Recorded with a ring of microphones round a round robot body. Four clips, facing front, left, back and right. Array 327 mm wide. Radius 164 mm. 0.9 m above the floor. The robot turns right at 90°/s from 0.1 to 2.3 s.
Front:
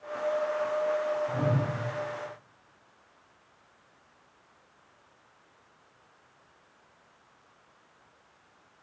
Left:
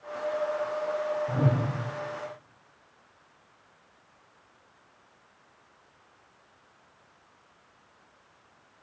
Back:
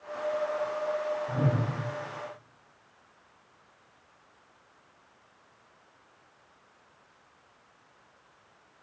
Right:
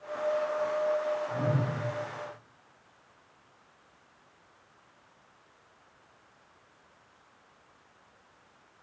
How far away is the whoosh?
About 2 m.